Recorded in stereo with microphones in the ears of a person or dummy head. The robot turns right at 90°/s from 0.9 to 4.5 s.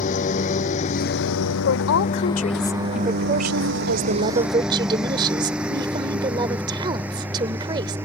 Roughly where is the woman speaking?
Left.